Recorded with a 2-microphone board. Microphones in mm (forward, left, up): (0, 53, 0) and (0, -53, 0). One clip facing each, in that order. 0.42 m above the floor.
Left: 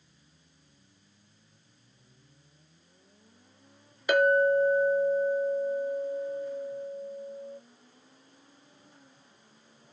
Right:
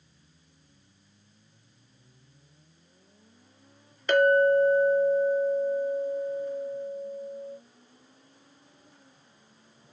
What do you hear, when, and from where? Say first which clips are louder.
4.1 s a clink: right 2 dB; 10° left (ahead or behind), 0.6 m